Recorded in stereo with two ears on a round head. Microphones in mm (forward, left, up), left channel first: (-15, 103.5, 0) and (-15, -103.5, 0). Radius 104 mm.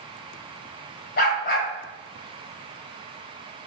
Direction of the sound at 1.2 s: 45° left (ahead or behind).